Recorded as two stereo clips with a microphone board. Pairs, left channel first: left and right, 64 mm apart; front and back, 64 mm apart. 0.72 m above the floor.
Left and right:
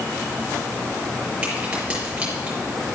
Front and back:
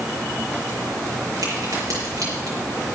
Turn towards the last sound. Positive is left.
turn(degrees=-160)